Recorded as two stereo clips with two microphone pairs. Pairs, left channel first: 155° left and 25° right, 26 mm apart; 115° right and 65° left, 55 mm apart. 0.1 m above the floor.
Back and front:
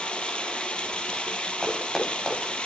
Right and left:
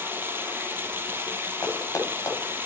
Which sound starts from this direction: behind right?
Running footsteps, at 1.6 s.